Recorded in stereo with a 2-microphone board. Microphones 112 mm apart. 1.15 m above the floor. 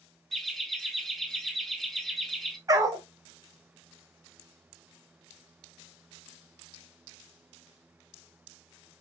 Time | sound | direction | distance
0.3 | laughter | centre (ahead or behind) | 0.6 m
2.7 | a dog barking | 30° right (ahead or behind) | 0.6 m